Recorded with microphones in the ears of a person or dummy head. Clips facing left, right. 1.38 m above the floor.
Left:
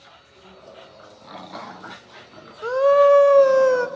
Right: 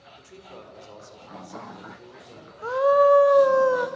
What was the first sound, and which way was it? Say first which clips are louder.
A man speaking: right 5 dB; 55° right (ahead or behind).